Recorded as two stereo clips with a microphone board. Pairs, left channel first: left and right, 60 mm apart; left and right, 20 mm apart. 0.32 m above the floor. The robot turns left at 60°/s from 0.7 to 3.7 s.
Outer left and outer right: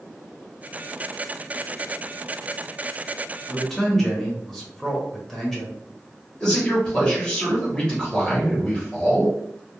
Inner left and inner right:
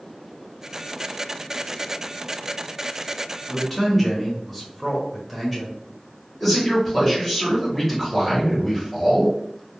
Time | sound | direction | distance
3.5 | a man speaking | centre (ahead or behind) | 1.0 m
6.4 | a man speaking | 15° left (ahead or behind) | 1.1 m